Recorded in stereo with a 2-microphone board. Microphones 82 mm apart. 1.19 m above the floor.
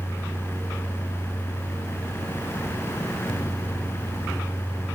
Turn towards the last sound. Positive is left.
No sound to turn to.